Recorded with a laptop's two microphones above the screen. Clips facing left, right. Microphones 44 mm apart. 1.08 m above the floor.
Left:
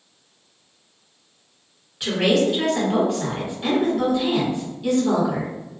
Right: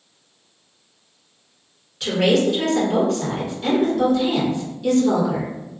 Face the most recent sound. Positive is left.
turn(degrees=20)  # may be behind; listen again after turning